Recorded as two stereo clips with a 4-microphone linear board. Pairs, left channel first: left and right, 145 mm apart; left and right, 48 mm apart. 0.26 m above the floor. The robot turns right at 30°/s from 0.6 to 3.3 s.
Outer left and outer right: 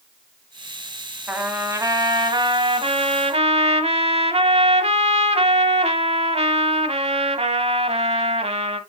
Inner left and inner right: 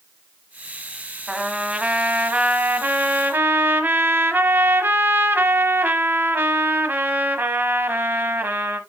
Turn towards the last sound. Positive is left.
turn(degrees=-105)